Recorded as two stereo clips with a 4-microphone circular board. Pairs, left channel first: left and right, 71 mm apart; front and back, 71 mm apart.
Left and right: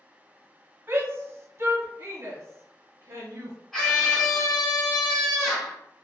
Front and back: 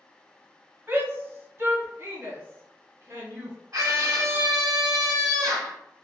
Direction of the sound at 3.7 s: 175° left.